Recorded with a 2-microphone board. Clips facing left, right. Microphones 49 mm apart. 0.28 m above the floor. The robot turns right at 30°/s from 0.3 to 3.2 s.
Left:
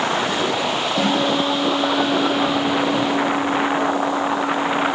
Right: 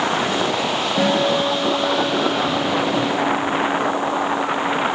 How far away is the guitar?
About 4.5 m.